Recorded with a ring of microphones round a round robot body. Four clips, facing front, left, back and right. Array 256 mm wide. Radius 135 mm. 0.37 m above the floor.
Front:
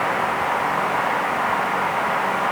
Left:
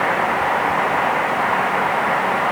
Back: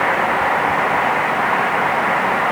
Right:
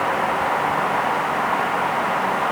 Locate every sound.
Only background noise.